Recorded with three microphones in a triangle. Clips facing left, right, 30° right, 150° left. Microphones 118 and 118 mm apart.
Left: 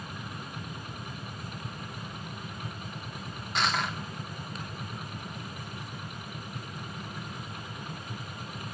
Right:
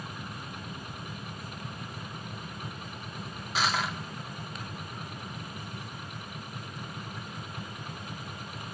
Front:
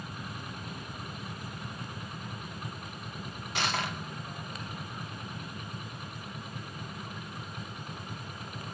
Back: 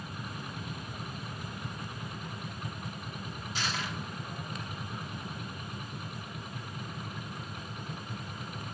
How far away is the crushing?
About 1.6 m.